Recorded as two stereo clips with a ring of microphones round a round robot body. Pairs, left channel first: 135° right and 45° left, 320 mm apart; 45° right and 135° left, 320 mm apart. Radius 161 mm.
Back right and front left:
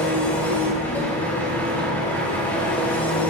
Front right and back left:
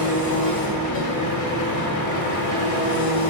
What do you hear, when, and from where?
0.0 s an engine running: 50° right, 1.9 m